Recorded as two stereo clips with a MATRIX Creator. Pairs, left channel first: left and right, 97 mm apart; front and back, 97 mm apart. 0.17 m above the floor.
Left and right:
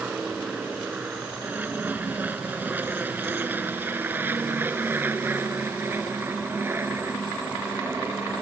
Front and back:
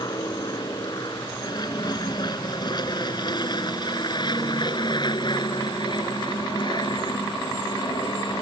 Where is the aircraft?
20° right; by 8.4 s 25° right.